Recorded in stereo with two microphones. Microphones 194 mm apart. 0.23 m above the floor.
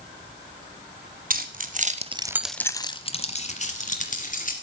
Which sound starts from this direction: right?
Keys jangling, at 1.3 s.